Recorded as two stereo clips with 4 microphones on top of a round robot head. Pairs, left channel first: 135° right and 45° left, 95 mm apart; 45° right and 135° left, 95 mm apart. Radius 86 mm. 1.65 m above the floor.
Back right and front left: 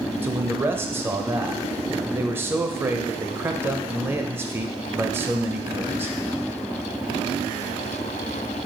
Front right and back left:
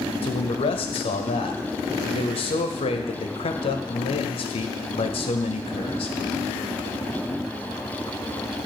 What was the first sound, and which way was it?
A man speaking, 20° right.